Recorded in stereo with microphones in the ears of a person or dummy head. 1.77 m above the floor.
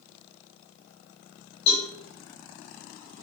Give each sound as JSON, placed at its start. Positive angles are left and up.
{"t": 1.7, "sound": "a cowbell", "side_deg": 35, "distance_m": 4.0}